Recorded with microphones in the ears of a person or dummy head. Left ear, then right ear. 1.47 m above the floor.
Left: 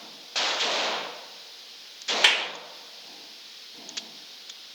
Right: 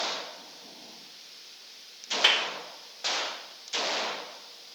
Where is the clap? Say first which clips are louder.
Left 2 dB; 20° left (ahead or behind), 3.5 m.